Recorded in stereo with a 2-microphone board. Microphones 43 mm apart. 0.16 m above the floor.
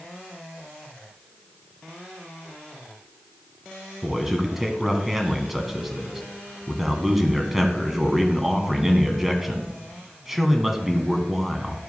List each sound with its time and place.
4.0 s a man speaking: 5° right (ahead or behind), 1.0 m